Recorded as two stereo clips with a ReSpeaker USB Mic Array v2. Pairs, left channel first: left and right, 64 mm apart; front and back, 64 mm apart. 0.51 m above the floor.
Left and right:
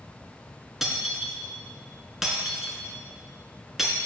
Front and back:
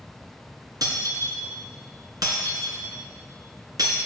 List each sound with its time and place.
0.8 s breaking glass: 175° right, 1.8 m